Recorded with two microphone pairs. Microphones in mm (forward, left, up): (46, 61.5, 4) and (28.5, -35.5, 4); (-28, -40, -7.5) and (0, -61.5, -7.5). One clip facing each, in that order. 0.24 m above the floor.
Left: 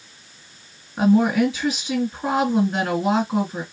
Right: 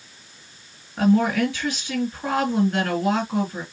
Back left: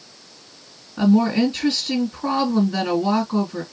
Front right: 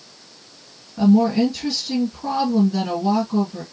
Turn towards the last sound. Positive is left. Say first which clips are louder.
# left 2 dB, front right 1 dB
turn(degrees=135)